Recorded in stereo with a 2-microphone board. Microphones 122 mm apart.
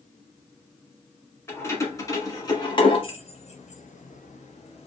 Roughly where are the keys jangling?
Left.